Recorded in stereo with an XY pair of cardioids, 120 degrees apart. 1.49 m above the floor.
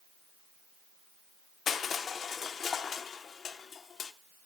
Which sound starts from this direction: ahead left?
Crushing, at 1.7 s.